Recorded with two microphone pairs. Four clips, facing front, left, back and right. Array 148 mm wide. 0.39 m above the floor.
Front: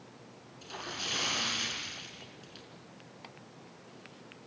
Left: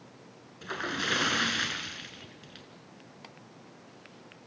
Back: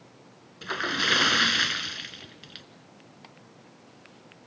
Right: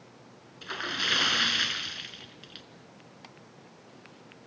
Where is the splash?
Straight behind, 1.4 m.